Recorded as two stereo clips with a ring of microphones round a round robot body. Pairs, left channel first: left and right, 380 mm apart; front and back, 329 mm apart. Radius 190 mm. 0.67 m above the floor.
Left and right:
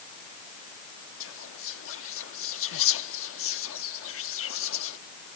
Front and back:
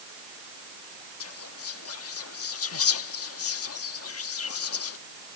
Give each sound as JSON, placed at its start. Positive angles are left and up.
{"t": 1.2, "sound": "whispering", "azimuth_deg": 40}